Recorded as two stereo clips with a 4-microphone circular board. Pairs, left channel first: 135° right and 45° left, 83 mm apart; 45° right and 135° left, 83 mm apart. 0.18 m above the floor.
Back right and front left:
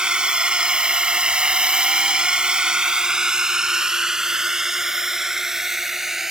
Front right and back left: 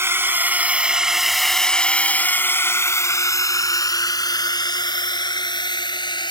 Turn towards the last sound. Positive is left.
turn(degrees=-40)